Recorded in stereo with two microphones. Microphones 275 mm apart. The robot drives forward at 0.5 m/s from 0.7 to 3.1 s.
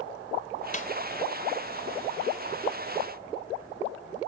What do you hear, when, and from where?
0.7 s a snare drum: 30° left (ahead or behind)